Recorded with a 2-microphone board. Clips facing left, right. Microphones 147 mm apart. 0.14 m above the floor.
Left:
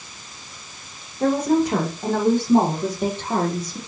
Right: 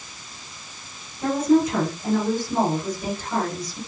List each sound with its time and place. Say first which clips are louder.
1.2 s a woman speaking: even; 75° left (ahead or behind), 8 m